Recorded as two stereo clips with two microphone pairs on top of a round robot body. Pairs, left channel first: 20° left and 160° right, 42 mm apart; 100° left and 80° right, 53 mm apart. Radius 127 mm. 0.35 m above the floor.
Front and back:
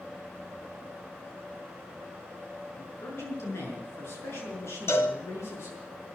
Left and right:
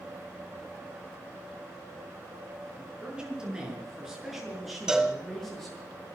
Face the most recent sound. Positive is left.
turn(degrees=0)